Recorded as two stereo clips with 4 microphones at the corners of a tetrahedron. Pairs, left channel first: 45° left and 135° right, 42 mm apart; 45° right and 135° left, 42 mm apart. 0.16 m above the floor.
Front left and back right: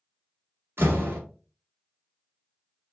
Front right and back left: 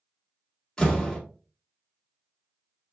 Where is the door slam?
125° right, 2.5 m.